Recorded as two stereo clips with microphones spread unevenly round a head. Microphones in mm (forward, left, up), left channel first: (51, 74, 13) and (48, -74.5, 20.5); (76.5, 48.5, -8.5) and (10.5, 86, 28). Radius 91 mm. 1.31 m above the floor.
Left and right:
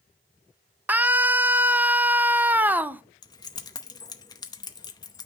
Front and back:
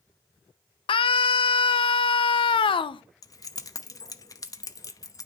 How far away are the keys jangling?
About 0.8 m.